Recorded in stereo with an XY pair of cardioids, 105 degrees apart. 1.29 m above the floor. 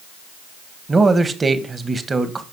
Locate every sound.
0.9 s a man speaking: 30° right, 1.4 m